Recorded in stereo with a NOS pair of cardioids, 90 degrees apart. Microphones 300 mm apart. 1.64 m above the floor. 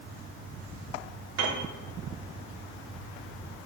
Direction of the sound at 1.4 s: 60° right.